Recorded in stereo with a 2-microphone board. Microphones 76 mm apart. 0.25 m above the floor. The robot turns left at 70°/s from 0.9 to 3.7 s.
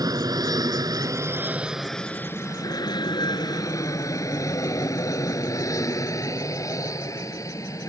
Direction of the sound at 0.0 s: 55° right (ahead or behind).